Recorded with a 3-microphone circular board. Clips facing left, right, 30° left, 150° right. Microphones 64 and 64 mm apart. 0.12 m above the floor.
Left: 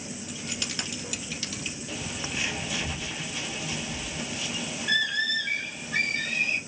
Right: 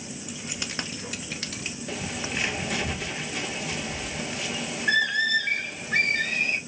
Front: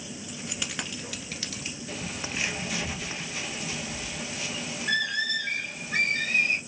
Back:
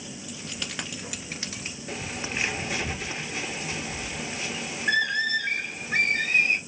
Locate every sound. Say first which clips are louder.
0.3 s keys jangling: right 1 dB, even; 15° right, 1.1 m; by 1.8 s 105° right, 1.4 m
1.9 s a bird: right 4 dB, back 3 dB; 100° right, 1.2 m